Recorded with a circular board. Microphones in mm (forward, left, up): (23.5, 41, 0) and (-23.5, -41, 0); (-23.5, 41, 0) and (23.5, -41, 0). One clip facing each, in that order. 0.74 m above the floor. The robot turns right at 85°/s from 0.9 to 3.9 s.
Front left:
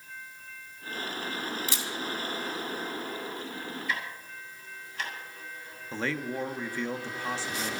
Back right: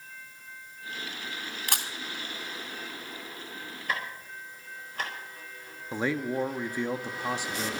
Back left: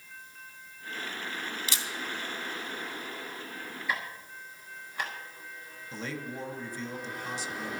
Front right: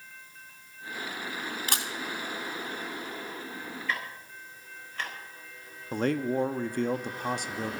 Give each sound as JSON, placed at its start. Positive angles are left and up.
{"t": 1.7, "sound": "a camera shutter", "azimuth_deg": -100, "distance_m": 2.5}
{"t": 3.9, "sound": "ticking", "azimuth_deg": -165, "distance_m": 4.5}
{"t": 5.9, "sound": "a man speaking", "azimuth_deg": -50, "distance_m": 0.9}